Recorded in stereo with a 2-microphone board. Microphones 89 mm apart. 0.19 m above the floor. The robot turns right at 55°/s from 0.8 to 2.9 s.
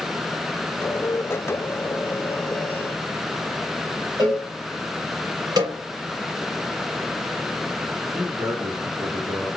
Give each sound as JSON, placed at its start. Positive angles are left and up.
{"t": 4.2, "sound": "a cowbell", "side_deg": -55, "distance_m": 3.0}
{"t": 5.6, "sound": "a snare drum", "side_deg": -55, "distance_m": 3.0}
{"t": 8.1, "sound": "a man speaking", "side_deg": -50, "distance_m": 2.5}